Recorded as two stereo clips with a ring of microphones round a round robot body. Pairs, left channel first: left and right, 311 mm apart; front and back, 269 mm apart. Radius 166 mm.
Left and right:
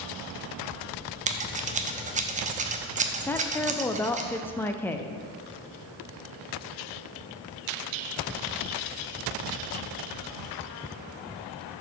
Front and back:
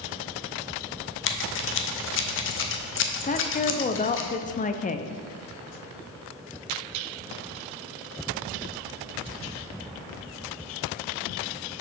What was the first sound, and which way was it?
Scissors, 30° right.